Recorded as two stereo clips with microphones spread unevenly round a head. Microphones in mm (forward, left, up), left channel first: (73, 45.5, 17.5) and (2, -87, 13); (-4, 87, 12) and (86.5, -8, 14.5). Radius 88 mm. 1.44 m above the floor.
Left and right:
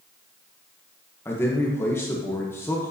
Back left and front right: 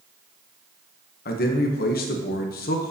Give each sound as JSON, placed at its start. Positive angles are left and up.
{"t": 1.2, "sound": "a man speaking", "azimuth_deg": 140, "distance_m": 0.8}